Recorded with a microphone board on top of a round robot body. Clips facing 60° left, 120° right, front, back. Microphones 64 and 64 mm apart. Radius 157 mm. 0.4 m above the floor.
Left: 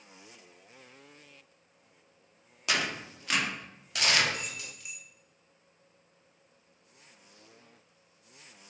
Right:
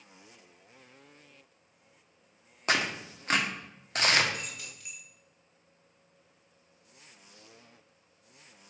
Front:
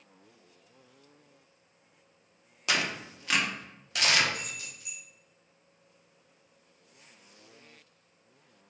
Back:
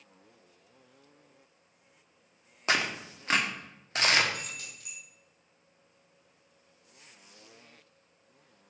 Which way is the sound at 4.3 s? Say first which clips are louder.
Left 1 dB, front 1 dB; 150° left.